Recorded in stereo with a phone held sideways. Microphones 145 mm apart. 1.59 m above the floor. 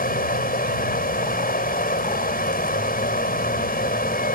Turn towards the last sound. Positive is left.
turn(degrees=85)